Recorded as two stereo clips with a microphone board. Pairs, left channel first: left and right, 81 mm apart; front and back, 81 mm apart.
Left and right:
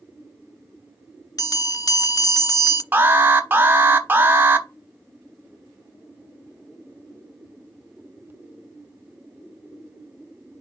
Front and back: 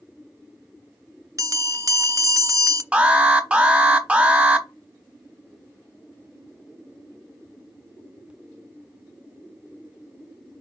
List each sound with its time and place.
1.4 s a bell: 130° left, 0.5 m
2.9 s an alarm: 120° right, 1.0 m